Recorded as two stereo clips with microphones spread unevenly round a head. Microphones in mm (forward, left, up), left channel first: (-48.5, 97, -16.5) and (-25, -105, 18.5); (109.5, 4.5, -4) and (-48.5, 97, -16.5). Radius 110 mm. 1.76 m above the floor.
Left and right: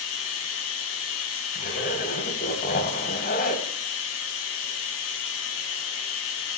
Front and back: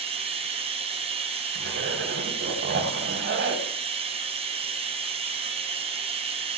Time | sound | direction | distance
0.0 | running water | 95° left | 3 m
1.6 | a zipper | 140° left | 3 m